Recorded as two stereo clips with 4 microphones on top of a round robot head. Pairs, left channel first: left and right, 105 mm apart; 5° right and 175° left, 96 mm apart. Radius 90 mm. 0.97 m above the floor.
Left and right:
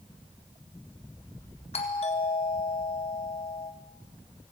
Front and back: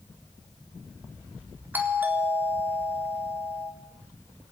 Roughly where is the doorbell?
Left.